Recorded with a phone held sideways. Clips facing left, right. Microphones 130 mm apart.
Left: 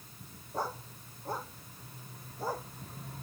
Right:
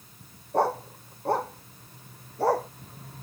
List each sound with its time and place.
0.5 s a dog barking: 65° right (ahead or behind); by 2.7 s 70° right (ahead or behind)